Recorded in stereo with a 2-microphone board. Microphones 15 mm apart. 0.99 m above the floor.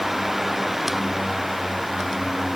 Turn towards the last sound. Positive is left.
No sound to turn to.